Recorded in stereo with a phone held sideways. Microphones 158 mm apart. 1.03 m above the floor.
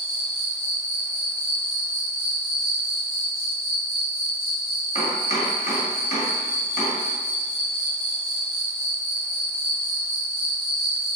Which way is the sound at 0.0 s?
15° left (ahead or behind).